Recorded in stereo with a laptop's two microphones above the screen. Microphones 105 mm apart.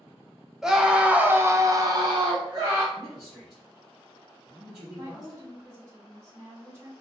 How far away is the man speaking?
About 1.5 m.